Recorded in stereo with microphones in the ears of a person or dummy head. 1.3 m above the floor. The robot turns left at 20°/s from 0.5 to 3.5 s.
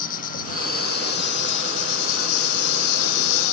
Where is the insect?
135° left; by 3.5 s 75° left.